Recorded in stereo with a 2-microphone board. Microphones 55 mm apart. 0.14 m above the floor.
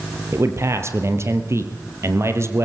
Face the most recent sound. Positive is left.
turn(degrees=-55)  # may be behind; listen again after turning